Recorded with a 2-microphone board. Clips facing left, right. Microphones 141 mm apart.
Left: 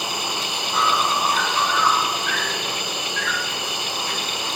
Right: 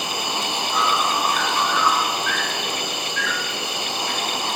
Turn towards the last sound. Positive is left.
turn(degrees=50)  # may be behind; listen again after turning